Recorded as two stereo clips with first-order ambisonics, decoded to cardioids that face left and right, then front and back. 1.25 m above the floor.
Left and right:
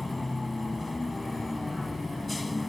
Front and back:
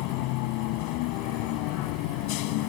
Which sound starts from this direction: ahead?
A vehicle, at 0.0 s.